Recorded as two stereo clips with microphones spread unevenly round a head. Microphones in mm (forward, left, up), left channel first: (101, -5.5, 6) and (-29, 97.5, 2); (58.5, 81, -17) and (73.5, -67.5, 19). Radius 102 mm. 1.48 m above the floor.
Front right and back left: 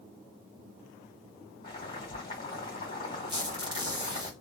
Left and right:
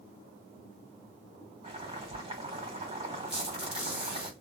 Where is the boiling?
95° right, 1.7 m.